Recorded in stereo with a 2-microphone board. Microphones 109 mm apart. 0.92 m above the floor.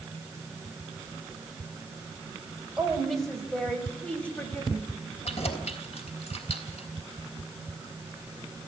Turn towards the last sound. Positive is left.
turn(degrees=70)  # may be behind; listen again after turning